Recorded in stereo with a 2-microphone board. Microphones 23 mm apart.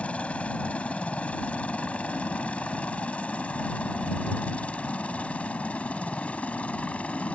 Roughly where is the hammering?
I don't hear hammering.